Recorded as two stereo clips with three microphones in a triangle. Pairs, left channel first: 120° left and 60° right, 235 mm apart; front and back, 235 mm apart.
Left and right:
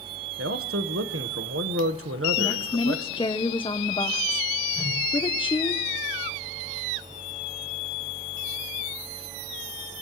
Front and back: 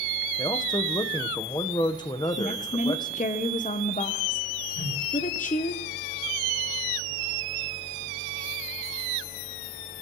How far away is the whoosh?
About 8.5 m.